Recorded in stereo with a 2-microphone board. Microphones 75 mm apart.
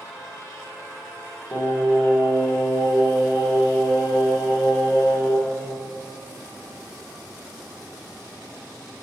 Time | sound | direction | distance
1.5 | singing | 35° left (ahead or behind) | 6 m